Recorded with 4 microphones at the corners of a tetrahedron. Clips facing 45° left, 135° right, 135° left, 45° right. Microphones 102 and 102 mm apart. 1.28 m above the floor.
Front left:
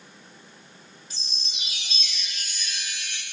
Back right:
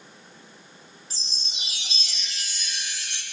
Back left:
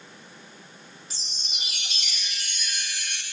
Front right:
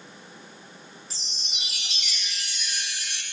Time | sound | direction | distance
1.1 | a chime | 135° right | 1.2 m